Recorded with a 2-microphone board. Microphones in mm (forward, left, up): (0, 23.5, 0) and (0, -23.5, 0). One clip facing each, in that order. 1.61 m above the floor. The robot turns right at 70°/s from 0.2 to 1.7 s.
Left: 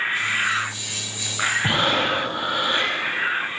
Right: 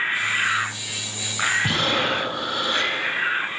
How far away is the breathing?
About 4.5 m.